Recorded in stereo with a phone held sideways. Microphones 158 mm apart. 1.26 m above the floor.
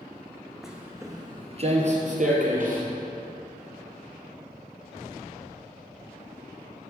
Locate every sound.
0.6 s footsteps: centre (ahead or behind), 1.4 m; by 2.8 s 60° right (ahead or behind), 2.5 m